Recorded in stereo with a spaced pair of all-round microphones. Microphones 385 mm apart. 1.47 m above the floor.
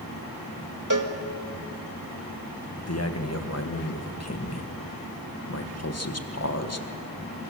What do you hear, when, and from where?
0.9 s a cowbell: 55° right (ahead or behind), 1.6 m
2.8 s a man speaking: 40° left (ahead or behind), 1.5 m